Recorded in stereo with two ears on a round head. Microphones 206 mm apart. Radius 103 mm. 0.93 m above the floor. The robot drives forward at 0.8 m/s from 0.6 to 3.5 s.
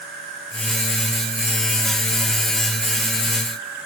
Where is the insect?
40° right (ahead or behind), 5 m; by 3.9 s 60° right (ahead or behind), 3.5 m.